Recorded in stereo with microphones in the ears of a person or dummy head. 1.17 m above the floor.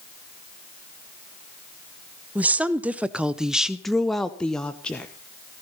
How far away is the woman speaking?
About 0.9 m.